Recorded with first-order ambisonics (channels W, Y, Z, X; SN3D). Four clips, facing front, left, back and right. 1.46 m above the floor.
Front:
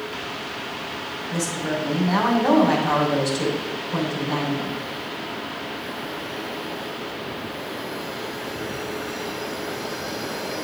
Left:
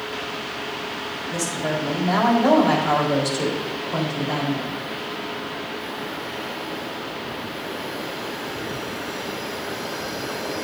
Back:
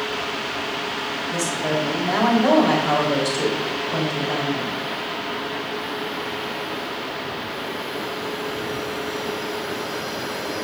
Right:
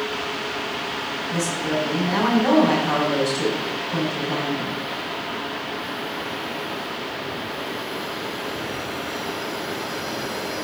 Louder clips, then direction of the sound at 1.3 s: Right 1 dB, back 2 dB; 135° left.